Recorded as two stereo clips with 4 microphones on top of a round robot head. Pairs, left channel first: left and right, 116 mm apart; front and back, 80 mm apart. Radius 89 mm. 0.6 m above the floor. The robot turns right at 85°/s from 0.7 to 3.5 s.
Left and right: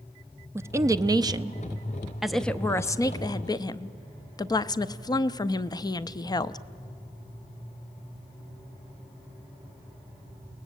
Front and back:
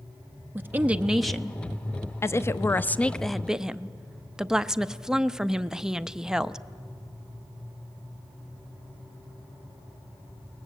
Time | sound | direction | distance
0.6 | a woman speaking | 135° right | 0.6 m